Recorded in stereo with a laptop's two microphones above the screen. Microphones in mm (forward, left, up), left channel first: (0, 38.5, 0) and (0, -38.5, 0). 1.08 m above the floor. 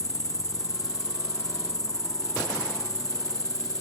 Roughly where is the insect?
Left.